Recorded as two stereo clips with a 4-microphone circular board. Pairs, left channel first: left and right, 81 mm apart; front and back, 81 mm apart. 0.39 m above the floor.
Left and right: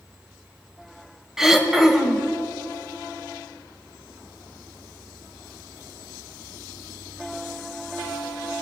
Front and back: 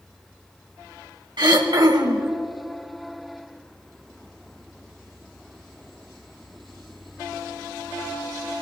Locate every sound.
1.4 s throat clearing: 175° right, 1.2 m